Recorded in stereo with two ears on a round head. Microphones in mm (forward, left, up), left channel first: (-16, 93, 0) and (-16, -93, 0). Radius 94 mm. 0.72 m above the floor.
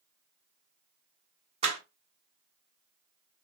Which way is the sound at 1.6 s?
30° right (ahead or behind).